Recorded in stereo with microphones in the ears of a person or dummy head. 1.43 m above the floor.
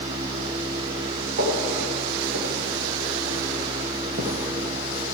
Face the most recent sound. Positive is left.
turn(degrees=-25)  # may be behind; listen again after turning